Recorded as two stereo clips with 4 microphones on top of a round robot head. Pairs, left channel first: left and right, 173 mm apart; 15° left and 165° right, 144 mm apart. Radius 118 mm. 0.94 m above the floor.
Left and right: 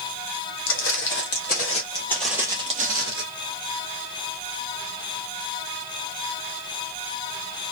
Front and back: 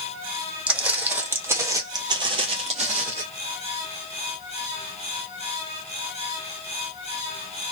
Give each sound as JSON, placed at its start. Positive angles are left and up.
{"t": 0.7, "sound": "footsteps", "azimuth_deg": 110, "distance_m": 1.8}